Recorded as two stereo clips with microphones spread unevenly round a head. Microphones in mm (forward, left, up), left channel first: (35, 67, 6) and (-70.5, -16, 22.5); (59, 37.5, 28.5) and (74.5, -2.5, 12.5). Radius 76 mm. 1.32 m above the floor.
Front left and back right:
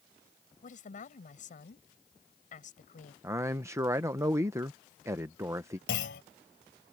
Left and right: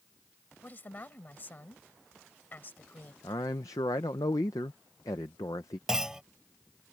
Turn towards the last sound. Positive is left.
turn(degrees=20)